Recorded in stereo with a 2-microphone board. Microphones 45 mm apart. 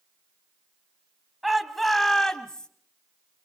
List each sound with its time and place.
1.4 s a shout: 5° right (ahead or behind), 2 m; by 2.7 s 20° left (ahead or behind), 1.9 m